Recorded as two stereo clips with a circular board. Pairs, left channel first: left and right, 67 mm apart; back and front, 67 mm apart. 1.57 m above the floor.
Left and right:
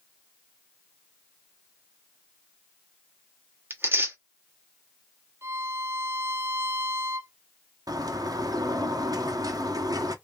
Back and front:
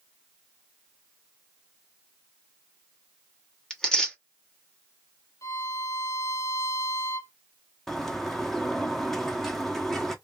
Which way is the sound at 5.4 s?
140° right.